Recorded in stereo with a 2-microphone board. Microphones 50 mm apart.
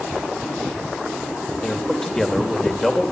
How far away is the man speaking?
About 2.5 m.